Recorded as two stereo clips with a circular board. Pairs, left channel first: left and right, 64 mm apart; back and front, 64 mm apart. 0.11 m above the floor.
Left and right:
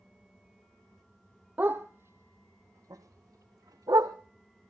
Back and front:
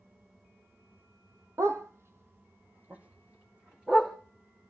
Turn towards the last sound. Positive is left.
turn(degrees=-75)